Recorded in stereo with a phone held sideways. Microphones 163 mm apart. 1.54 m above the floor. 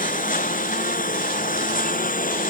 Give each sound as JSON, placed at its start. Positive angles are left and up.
{"t": 0.0, "sound": "a lawn mower", "side_deg": 55}